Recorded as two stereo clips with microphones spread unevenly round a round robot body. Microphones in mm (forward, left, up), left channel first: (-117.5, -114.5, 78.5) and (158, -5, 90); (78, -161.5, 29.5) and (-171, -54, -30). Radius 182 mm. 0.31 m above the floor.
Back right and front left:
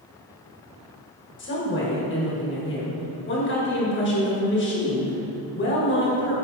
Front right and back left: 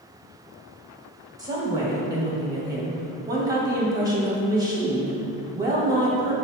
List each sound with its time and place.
1.4 s a woman speaking: 150° right, 1.7 m